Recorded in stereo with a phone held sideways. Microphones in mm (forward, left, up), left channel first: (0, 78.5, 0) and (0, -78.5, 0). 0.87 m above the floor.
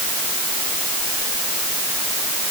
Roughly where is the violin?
No violin in this recording.